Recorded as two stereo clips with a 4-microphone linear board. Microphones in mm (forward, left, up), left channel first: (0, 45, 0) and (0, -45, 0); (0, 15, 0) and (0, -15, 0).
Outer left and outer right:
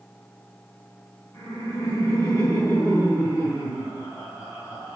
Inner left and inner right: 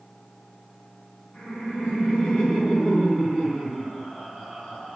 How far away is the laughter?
About 1.7 m.